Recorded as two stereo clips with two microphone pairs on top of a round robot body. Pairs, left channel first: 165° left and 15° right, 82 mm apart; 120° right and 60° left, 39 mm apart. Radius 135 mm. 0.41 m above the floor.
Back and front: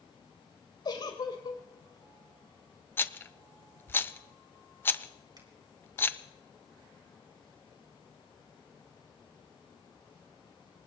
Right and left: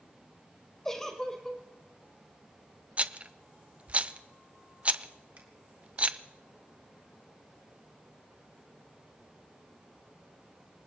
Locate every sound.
0.8 s a giggle: 155° left, 3 m
3.0 s a rattle: 105° left, 0.9 m
5.4 s a finger snap: 20° left, 4 m